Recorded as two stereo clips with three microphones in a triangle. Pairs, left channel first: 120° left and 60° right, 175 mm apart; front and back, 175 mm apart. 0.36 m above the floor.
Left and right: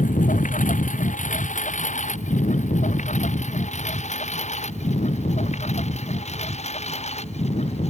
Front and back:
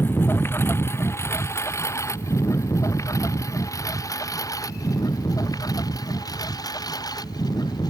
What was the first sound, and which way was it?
A lawn mower, 80° left.